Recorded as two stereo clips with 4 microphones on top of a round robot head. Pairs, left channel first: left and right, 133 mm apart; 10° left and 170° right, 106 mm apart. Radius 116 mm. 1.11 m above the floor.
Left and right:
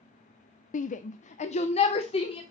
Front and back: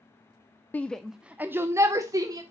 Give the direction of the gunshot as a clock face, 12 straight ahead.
No gunshot in this recording.